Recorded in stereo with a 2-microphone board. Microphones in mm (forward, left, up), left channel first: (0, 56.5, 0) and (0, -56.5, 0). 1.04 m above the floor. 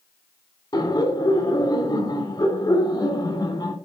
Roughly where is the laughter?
Left.